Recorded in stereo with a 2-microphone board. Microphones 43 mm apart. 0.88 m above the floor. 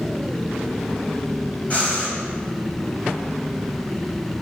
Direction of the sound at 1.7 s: 35° left (ahead or behind).